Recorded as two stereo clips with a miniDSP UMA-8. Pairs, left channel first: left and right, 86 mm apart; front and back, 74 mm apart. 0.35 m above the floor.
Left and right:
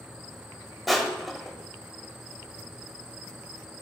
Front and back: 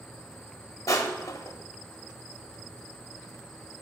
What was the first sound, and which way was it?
Crushing, straight ahead.